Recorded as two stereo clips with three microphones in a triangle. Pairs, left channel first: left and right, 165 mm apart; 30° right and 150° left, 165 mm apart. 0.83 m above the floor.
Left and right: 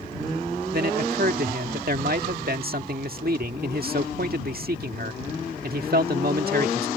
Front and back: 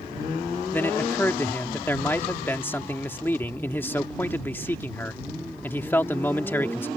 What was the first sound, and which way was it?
A man speaking, 110° right.